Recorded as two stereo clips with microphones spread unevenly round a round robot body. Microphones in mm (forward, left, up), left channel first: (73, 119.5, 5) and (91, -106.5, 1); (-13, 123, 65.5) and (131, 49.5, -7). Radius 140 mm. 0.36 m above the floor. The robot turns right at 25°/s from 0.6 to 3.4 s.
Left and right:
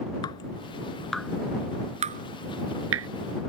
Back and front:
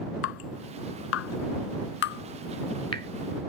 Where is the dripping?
170° left; by 3.1 s 130° right.